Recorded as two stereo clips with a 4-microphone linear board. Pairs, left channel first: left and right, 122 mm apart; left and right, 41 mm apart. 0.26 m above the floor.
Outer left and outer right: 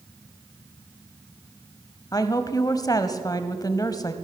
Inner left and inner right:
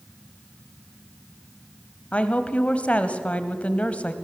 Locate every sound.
2.1 s a woman speaking: 35° left (ahead or behind), 1.1 m